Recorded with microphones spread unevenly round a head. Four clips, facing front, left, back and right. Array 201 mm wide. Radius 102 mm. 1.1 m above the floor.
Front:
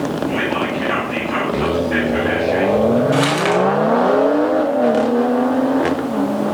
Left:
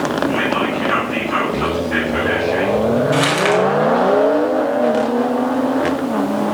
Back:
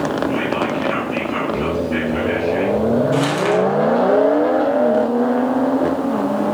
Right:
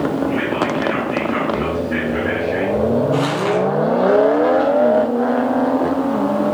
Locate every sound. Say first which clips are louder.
0.3 s whispering: left 1 dB, even; 10° left, 8 m
3.1 s crumpling: left 2 dB, front 1 dB; 45° left, 6.5 m